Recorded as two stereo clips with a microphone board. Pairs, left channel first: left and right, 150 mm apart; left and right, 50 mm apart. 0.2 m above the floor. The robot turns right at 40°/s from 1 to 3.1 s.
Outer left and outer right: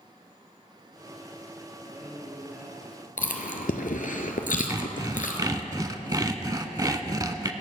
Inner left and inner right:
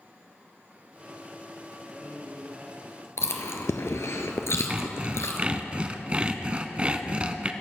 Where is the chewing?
75° left (ahead or behind), 1.1 m.